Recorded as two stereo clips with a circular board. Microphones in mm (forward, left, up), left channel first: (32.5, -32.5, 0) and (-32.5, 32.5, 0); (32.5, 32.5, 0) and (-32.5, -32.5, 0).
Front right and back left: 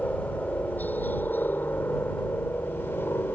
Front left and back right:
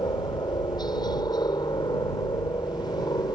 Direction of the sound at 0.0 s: 25° left.